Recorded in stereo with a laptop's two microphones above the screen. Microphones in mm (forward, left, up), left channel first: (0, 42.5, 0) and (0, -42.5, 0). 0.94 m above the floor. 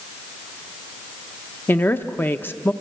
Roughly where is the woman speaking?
Left.